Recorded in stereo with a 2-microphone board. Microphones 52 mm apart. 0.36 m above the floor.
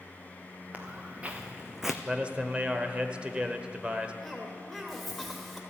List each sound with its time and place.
0.7 s footsteps: 25° right (ahead or behind), 2 m; by 1.9 s centre (ahead or behind), 0.9 m
2.0 s a man speaking: 20° right (ahead or behind), 1.0 m
4.2 s a cough: centre (ahead or behind), 1.5 m